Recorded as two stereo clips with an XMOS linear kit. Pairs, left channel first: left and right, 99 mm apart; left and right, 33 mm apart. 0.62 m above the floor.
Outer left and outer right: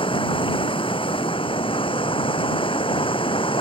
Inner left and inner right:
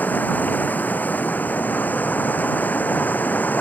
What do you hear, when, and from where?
0.0 s running water: 60° left (ahead or behind)